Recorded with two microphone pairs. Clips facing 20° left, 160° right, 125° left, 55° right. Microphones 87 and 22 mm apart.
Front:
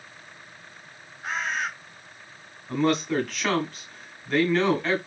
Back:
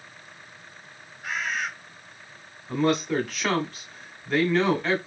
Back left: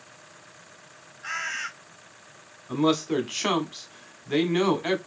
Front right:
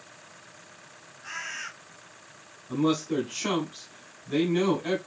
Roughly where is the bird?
Left.